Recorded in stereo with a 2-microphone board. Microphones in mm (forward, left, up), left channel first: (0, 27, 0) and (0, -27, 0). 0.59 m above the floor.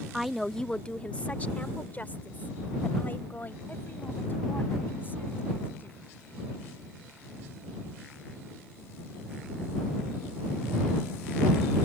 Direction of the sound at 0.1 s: 5° right (ahead or behind).